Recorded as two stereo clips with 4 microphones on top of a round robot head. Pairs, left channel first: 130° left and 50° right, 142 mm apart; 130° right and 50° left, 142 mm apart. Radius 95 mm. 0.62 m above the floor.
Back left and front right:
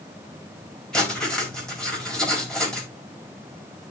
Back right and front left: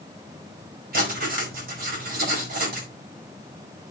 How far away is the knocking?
No knocking in this recording.